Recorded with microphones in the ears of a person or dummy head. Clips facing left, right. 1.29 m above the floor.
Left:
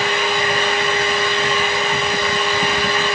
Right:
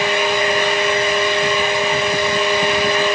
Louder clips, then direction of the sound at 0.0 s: Right 2 dB; 10° right (ahead or behind).